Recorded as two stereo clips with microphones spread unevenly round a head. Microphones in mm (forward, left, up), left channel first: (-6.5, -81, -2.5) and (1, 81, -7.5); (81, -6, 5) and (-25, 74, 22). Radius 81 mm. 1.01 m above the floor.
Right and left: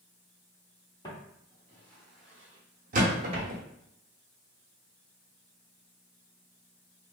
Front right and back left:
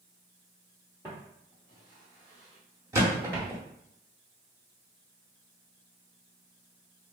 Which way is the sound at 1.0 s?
155° right.